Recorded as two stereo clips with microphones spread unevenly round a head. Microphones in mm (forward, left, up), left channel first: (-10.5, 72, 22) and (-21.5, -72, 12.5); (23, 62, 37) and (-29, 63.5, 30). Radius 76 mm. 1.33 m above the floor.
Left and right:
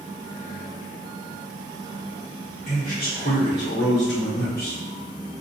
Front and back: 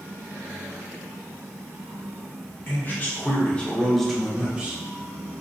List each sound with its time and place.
2.7 s a man speaking: 40° left, 1.2 m; by 4.8 s 110° left, 1.0 m